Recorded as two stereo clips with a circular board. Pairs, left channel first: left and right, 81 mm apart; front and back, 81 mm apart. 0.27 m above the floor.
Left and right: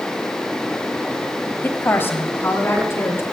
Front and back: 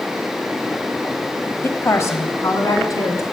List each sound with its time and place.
1.6 s a woman speaking: 40° left, 1.2 m